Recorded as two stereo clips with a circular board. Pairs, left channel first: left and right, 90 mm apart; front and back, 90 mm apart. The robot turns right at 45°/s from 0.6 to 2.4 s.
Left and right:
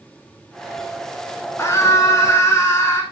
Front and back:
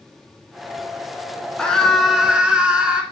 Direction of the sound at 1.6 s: 70° left.